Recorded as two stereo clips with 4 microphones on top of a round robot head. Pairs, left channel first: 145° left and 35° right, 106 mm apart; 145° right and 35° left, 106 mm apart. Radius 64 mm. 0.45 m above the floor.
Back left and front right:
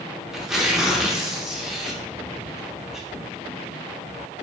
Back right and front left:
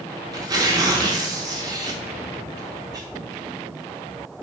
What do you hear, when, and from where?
0.3 s tearing paper: 50° left, 0.9 m